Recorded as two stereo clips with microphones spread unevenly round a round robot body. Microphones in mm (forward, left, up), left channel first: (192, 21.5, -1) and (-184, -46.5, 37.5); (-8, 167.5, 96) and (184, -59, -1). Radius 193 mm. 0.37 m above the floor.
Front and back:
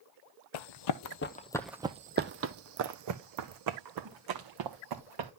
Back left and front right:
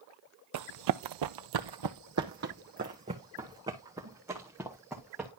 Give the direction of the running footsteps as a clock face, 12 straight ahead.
12 o'clock.